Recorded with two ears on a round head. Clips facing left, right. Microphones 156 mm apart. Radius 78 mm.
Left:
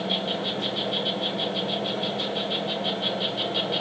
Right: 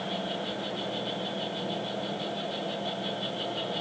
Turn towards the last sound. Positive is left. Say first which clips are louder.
# left 4 dB
turn(degrees=80)